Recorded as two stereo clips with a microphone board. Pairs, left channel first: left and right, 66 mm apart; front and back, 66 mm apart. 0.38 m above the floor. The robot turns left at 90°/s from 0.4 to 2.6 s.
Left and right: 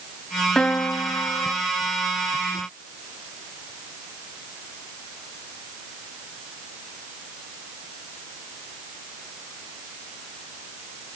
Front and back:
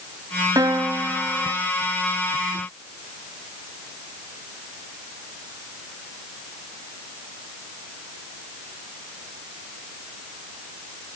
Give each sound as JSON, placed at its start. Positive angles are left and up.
{"t": 0.6, "sound": "a piano", "azimuth_deg": 170, "distance_m": 1.0}